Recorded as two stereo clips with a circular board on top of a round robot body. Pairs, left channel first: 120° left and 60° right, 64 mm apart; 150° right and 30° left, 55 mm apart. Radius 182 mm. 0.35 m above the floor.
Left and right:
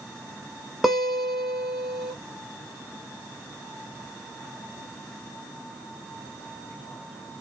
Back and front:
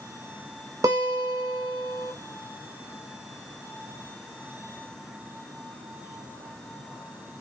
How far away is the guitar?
About 0.5 m.